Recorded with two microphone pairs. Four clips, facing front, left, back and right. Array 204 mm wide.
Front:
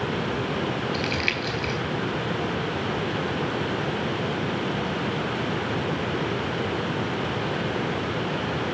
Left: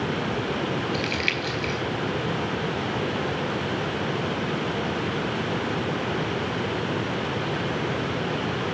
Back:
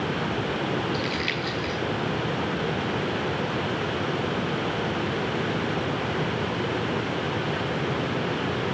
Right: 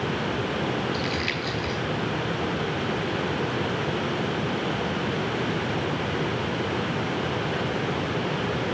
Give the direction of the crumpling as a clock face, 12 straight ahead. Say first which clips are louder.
Left 1 dB, front 1 dB; 11 o'clock.